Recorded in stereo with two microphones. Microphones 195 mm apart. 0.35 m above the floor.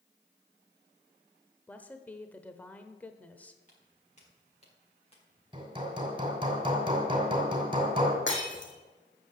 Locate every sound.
1.7 s a woman speaking: 10° left (ahead or behind), 1.0 m
3.7 s footsteps: 40° left (ahead or behind), 5.5 m; by 5.4 s 25° left (ahead or behind), 5.5 m
5.5 s hammering: 25° right (ahead or behind), 2.5 m
8.3 s breaking glass: 75° left (ahead or behind), 3 m